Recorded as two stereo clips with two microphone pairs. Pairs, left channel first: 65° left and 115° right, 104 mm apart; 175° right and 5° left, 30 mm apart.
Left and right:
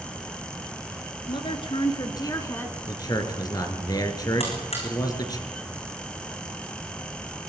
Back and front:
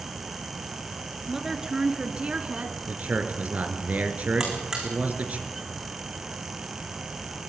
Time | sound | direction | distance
1.3 | a woman speaking | 80° left | 2 m
2.9 | a man speaking | 20° left | 3 m
4.4 | a buzzer | 80° left | 5.5 m